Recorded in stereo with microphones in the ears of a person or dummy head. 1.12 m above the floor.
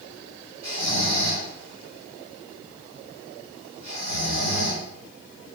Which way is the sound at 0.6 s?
40° right (ahead or behind).